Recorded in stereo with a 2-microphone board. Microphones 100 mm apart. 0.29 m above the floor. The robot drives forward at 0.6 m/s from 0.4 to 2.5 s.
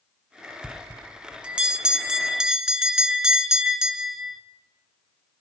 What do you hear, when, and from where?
0.6 s a bell: 20° right (ahead or behind), 0.5 m; by 4.4 s 5° right (ahead or behind), 1.6 m